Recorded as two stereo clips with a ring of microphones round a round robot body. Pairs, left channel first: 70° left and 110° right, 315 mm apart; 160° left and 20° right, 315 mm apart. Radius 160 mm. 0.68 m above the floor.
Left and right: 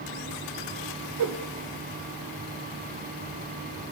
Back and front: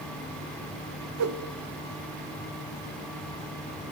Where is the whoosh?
70° right, 0.5 m.